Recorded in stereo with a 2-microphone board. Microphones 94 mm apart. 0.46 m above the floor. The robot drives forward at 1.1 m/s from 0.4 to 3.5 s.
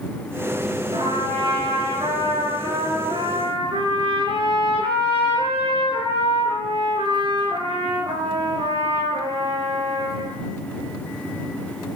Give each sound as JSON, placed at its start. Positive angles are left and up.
{"t": 0.9, "sound": "a trumpet", "side_deg": -65, "distance_m": 6.5}